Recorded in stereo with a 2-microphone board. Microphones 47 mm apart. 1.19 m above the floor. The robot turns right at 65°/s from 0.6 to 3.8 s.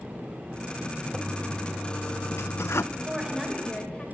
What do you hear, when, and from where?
1.1 s a toilet flushing: 10° right, 0.8 m; by 2.8 s 100° left, 0.8 m
2.9 s a woman speaking: 30° right, 5 m; by 4.0 s 25° left, 5 m